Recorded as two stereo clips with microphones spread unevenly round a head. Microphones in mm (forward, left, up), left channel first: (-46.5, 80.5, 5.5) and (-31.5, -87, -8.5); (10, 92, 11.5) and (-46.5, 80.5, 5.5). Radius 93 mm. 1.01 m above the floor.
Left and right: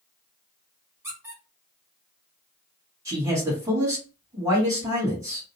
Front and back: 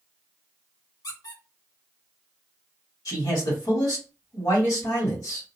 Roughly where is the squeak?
Ahead.